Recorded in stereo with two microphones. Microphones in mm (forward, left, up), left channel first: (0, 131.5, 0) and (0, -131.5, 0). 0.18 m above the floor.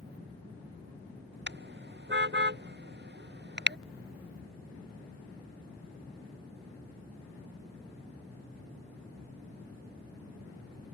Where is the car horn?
40° right (ahead or behind).